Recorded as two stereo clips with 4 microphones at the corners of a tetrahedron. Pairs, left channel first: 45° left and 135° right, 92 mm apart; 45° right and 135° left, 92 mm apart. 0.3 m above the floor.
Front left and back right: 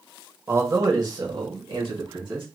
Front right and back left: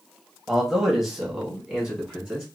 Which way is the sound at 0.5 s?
135° right.